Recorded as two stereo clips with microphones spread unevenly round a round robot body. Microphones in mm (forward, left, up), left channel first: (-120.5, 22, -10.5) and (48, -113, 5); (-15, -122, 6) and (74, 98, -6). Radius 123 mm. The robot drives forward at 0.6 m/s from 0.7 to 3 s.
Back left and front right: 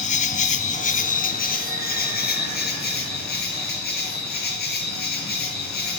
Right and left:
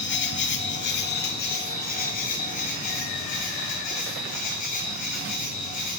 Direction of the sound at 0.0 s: 160° right.